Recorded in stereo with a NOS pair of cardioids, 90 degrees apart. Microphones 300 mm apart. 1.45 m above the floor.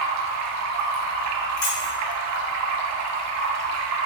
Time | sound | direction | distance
0.0 | running water | 65° right | 0.9 m
1.6 | keys jangling | 70° left | 1.8 m